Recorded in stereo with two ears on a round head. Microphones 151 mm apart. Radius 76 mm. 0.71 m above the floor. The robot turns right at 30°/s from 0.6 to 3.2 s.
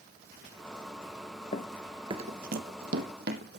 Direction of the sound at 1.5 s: 35° left (ahead or behind).